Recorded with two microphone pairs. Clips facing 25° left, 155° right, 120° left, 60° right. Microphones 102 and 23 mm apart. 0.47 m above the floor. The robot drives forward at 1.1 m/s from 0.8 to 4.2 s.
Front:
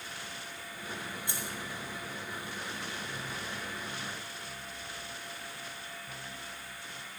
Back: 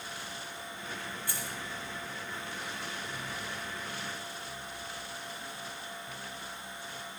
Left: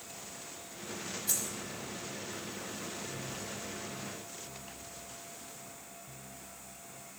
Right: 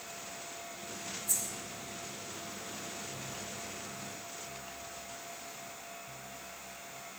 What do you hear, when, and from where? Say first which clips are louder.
1.3 s keys jangling: even, left 1 dB; 90° left, 2.5 m; by 1.6 s 95° left, 2.5 m